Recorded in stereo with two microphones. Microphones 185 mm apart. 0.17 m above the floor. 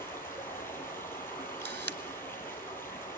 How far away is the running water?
About 5 m.